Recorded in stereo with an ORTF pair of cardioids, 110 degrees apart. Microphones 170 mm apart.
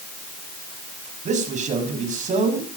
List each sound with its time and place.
1.2 s a man speaking: 45° right, 6 m